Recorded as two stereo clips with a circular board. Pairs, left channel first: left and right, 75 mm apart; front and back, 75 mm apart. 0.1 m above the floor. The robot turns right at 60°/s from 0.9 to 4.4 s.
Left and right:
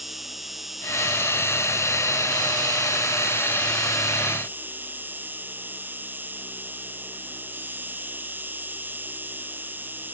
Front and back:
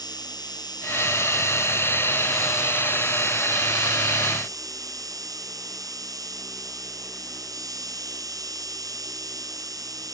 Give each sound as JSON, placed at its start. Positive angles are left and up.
{"t": 0.0, "sound": "an insect", "azimuth_deg": 0}